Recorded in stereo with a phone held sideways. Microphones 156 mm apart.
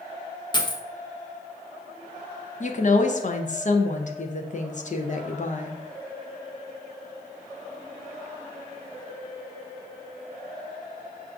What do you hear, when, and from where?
0.5 s a dropped coin: 30° left (ahead or behind), 0.6 m
2.6 s a woman speaking: 50° left (ahead or behind), 0.5 m